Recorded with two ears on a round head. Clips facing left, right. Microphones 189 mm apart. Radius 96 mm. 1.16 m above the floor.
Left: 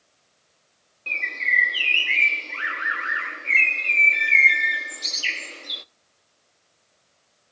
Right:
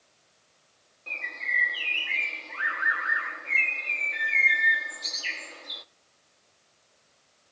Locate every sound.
1.1 s a bird: 35° left (ahead or behind), 0.7 m